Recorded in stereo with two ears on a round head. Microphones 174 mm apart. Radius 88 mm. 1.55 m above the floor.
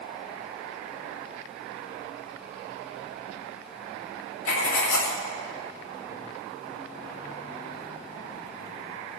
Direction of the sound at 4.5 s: 75° left (ahead or behind).